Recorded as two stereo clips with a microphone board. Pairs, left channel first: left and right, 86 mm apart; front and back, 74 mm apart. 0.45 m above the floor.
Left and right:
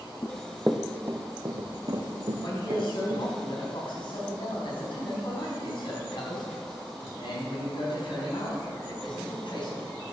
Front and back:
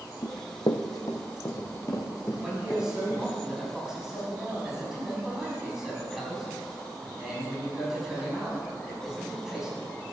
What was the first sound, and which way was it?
Running footsteps, 35° left.